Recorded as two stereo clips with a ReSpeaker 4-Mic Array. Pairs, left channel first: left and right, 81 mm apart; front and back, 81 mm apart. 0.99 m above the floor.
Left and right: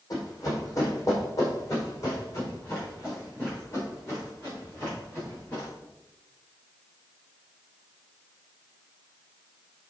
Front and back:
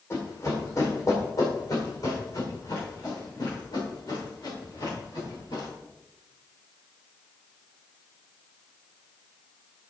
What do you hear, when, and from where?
0.1 s running footsteps: 50° left, 3 m; by 5.7 s 30° left, 6.5 m